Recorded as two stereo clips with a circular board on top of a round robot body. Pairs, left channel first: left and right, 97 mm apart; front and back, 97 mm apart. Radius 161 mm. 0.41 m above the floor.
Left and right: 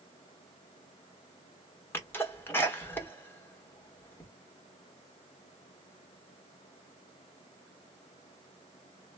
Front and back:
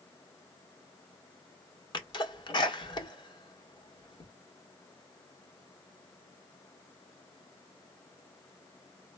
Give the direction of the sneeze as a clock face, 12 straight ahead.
11 o'clock.